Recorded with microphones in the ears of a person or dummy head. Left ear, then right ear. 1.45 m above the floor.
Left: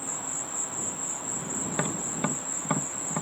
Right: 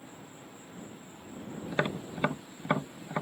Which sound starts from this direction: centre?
Tapping, at 1.7 s.